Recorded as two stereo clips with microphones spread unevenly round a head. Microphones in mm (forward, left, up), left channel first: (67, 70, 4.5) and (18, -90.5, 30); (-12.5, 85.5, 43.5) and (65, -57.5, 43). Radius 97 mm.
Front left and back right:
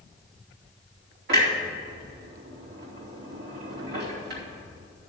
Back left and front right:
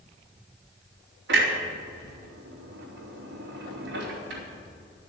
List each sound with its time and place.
1.3 s a clunk: 85° right, 3 m